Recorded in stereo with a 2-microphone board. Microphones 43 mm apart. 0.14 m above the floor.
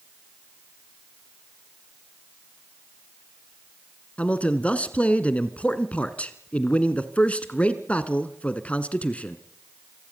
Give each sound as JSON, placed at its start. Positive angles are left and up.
{"t": 4.2, "sound": "a man speaking", "side_deg": 30, "distance_m": 1.6}